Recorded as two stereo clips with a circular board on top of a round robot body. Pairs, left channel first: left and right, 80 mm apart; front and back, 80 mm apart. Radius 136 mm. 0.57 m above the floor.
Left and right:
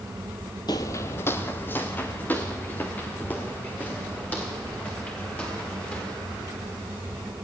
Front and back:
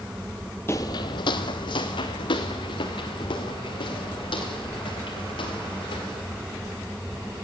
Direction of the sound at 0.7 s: 60° left.